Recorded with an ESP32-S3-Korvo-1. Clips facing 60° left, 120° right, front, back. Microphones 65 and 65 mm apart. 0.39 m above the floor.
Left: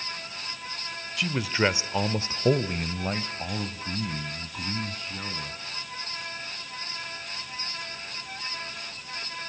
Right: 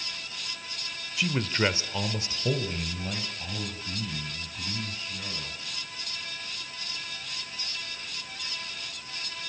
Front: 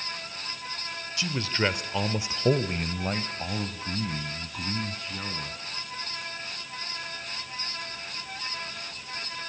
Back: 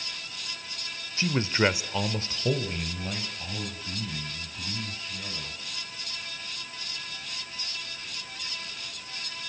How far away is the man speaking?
About 1.4 m.